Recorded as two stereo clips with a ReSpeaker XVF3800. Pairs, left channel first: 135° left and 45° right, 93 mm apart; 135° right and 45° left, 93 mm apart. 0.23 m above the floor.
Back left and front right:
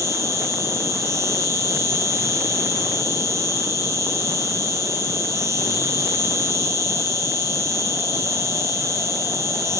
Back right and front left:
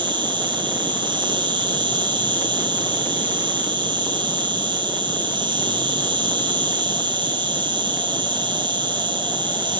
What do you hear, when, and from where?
0.0 s an insect: 15° left, 5 m